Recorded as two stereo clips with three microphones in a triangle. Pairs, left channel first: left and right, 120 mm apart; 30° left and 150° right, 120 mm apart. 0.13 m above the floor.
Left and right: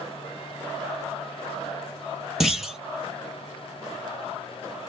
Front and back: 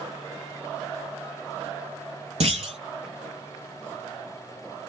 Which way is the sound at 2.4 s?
175° right.